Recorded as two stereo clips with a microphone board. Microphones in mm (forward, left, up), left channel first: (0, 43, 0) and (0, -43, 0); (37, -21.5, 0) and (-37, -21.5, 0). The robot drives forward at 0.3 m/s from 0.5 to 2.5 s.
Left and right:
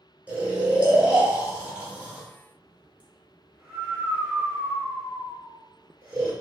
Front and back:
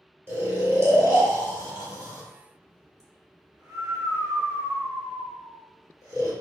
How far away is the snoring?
About 1.1 m.